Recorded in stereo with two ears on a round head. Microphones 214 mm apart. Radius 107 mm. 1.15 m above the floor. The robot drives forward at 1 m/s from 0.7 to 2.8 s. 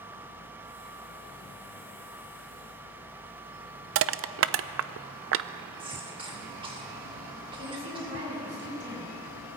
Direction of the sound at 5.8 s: 20° right (ahead or behind).